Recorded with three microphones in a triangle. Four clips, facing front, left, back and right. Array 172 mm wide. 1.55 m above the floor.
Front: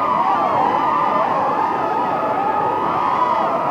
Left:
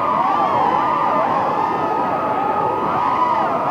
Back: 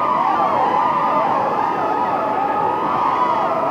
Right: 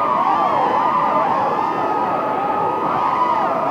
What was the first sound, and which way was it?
Only background noise.